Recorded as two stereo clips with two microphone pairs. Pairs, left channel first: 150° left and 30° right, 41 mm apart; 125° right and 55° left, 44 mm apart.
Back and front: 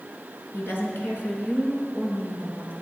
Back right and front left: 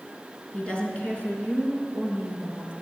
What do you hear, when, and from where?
0.5 s a woman speaking: 170° left, 4 m; by 2.7 s 160° right, 6 m